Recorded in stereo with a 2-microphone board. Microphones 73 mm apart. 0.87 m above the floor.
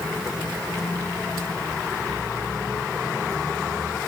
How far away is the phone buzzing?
No phone buzzing in this recording.